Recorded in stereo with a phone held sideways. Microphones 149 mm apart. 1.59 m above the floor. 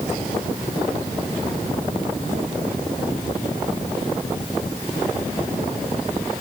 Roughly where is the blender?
No blender in this recording.